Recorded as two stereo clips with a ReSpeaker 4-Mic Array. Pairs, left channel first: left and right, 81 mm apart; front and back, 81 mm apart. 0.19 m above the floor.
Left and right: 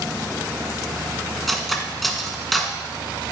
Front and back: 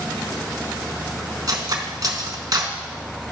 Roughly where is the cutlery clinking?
Behind.